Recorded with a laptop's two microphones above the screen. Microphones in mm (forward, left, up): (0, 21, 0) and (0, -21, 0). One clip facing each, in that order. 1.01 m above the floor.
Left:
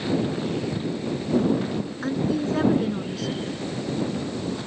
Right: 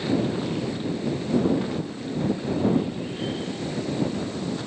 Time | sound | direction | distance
0.7 | footsteps | 40° left (ahead or behind) | ?
2.0 | a woman speaking | 75° left (ahead or behind) | ?